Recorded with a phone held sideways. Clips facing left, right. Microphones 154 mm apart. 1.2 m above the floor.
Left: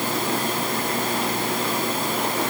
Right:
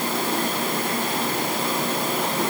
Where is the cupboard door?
I don't hear a cupboard door.